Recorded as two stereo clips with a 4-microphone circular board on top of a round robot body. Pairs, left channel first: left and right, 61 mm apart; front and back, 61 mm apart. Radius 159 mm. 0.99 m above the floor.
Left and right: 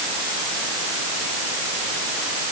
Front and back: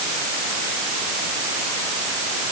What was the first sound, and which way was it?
Only background noise.